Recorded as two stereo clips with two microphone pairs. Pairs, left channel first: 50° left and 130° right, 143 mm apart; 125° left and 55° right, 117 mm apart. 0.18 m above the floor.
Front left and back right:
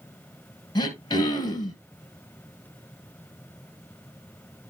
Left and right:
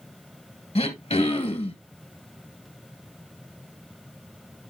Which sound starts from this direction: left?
Throat clearing, at 0.8 s.